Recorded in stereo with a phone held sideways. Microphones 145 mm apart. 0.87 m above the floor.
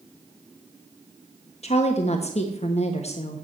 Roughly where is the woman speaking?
Left.